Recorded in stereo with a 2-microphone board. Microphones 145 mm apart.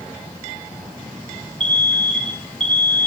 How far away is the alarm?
About 1.6 m.